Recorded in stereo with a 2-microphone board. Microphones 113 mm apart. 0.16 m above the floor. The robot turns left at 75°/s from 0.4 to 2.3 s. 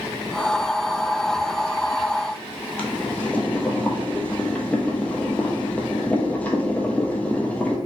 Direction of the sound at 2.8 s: 10° left (ahead or behind).